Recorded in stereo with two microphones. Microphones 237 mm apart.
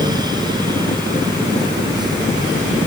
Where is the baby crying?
I don't hear a baby crying.